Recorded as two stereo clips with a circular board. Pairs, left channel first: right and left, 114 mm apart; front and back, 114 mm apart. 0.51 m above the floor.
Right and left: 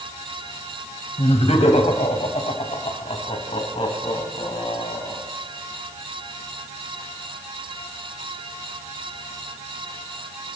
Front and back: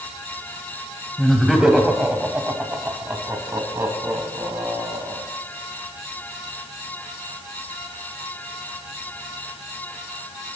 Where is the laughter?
90° right, 3 m; by 5.2 s 125° right, 5 m.